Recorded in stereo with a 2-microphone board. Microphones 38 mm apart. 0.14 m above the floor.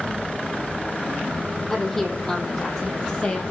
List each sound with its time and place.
1.7 s a woman speaking: 10° left (ahead or behind), 5 m; by 3.4 s 25° left (ahead or behind), 4 m